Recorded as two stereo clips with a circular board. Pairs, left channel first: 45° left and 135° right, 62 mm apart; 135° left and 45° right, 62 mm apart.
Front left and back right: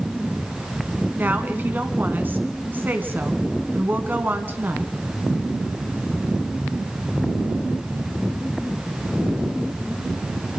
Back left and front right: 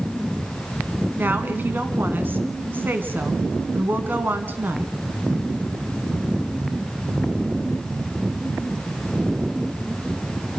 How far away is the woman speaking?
About 1.7 m.